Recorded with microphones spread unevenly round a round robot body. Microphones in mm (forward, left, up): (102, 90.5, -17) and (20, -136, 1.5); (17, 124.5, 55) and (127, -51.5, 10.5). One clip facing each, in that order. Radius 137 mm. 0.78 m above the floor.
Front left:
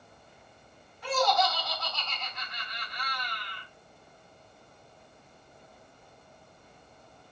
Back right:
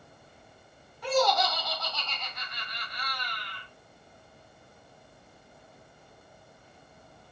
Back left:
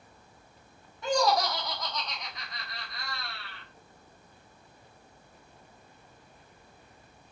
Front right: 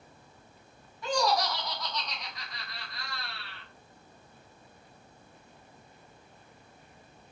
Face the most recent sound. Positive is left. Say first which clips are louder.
# back right 2 dB, back left 2 dB
turn(degrees=-165)